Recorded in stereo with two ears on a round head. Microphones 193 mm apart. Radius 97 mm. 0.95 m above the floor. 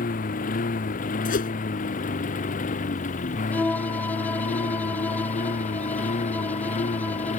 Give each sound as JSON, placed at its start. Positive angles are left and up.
{"t": 0.0, "sound": "a lawn mower", "side_deg": 40}
{"t": 1.2, "sound": "a whoosh", "side_deg": 40}
{"t": 3.5, "sound": "a violin", "side_deg": 10}